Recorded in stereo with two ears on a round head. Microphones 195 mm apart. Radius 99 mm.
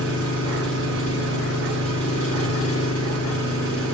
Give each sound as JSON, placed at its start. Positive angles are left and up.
{"t": 0.0, "sound": "an engine running", "side_deg": 70, "distance_m": 5.0}